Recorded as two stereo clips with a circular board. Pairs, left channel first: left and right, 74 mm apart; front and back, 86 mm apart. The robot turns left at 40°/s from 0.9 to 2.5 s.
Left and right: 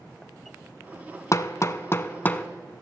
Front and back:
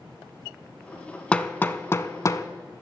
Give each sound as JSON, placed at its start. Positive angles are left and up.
{"t": 1.3, "sound": "hammering", "azimuth_deg": 70, "distance_m": 0.7}